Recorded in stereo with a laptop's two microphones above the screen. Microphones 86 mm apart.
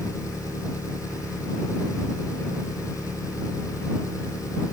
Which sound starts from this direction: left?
An engine running, at 0.0 s.